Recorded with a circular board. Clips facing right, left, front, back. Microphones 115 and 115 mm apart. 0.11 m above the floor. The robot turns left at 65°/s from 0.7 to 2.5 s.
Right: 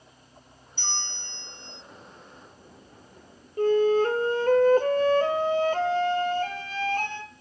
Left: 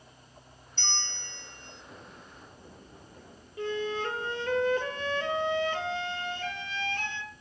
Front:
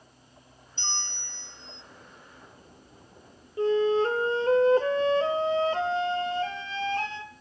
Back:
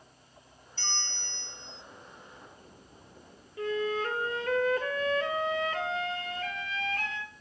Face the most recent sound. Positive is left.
turn(degrees=-55)